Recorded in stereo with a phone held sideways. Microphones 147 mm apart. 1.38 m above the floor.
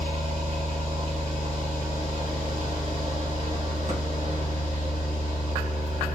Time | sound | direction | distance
0.0 | a machine running | 45° right (ahead or behind) | 2.5 m